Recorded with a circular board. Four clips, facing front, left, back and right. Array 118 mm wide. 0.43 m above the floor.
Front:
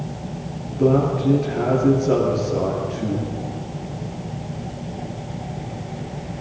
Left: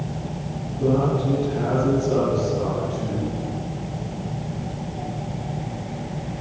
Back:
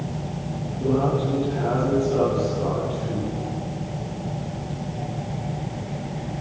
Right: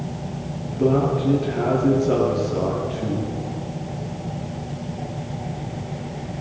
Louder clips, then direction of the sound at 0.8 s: Right 2 dB, front 4 dB; 35° right.